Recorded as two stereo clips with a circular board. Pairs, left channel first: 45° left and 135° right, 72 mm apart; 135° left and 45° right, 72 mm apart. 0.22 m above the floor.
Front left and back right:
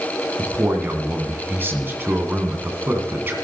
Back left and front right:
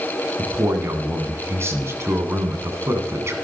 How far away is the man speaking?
About 2 m.